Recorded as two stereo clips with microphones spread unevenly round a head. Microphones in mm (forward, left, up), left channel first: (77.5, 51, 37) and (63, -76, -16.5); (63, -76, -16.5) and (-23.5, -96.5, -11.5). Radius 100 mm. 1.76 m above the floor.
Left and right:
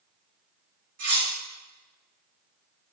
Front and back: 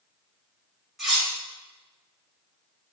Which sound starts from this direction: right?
Cutlery clinking, at 1.0 s.